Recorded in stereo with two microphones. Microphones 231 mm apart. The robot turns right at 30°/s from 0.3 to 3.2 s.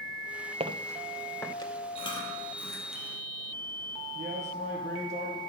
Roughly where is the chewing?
Left.